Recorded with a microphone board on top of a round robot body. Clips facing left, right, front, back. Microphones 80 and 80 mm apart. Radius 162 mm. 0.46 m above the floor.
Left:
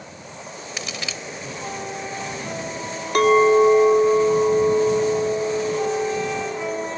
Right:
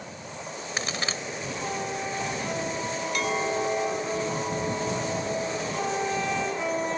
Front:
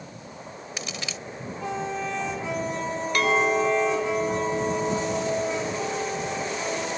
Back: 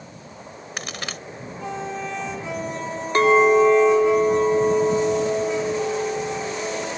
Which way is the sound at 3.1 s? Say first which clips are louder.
Left 15 dB, back 8 dB; 120° left.